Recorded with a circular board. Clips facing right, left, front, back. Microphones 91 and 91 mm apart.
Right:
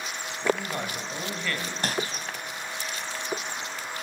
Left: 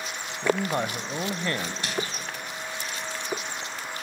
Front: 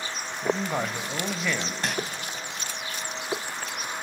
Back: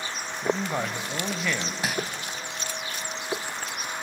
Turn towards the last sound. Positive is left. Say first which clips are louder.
# right 4 dB, back 1 dB
turn(degrees=-100)